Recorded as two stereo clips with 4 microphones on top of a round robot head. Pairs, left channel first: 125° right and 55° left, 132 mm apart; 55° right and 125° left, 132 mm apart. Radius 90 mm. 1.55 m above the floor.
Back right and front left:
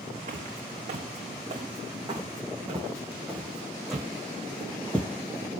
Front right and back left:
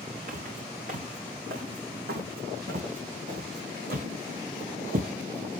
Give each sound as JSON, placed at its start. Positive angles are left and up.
{"t": 0.3, "sound": "footsteps", "azimuth_deg": 100, "distance_m": 4.5}